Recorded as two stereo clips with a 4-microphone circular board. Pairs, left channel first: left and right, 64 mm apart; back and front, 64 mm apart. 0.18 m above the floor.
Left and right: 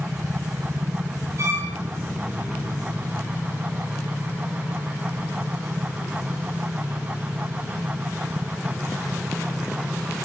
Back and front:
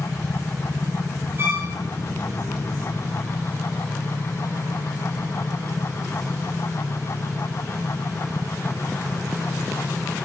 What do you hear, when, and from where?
1.4 s a violin: 50° right, 6 m